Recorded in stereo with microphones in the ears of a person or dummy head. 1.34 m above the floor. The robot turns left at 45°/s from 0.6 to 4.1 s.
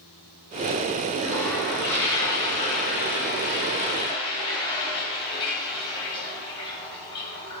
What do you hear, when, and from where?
1.1 s a toilet flushing: 15° right (ahead or behind), 1.0 m; by 7.6 s 25° left (ahead or behind), 1.0 m